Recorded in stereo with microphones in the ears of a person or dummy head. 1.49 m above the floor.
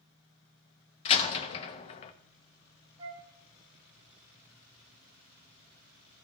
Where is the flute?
30° right (ahead or behind), 1.7 m.